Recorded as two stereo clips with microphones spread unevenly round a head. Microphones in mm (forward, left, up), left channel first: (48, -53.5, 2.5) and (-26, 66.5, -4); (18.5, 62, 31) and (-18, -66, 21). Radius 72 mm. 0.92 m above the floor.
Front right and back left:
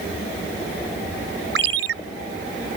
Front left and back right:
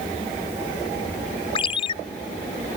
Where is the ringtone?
130° left.